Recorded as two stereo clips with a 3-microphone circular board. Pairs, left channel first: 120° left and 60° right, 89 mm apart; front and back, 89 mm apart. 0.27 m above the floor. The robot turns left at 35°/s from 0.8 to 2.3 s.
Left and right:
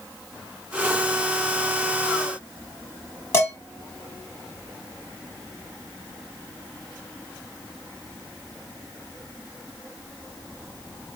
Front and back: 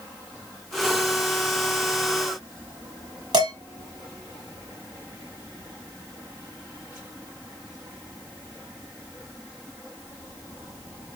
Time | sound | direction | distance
3.3 | dishes clattering | 170° left | 1.4 m